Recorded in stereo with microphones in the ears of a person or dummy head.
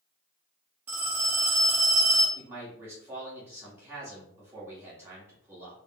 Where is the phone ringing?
10° right (ahead or behind), 1.2 m.